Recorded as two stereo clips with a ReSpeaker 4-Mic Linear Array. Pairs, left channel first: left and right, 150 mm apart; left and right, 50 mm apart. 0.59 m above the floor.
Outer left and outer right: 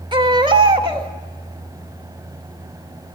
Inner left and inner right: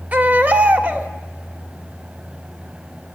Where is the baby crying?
30° right (ahead or behind), 1.3 m.